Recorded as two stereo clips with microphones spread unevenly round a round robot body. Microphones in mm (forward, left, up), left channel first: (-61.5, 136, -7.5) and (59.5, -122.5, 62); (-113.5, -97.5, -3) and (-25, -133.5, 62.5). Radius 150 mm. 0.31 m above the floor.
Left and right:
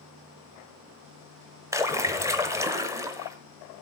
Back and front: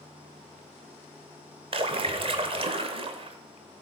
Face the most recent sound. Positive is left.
turn(degrees=30)